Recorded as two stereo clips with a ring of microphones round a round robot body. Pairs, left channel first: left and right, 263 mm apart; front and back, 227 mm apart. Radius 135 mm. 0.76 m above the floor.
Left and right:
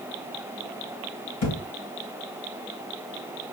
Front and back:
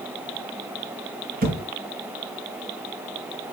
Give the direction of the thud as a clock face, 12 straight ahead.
8 o'clock.